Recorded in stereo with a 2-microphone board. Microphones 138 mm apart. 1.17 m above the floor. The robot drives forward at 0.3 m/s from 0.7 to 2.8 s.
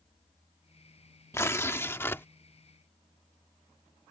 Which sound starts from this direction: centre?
Tearing paper, at 1.3 s.